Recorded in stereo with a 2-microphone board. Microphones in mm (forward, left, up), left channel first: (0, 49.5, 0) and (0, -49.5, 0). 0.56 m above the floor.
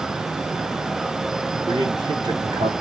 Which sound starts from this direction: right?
A man speaking, at 1.7 s.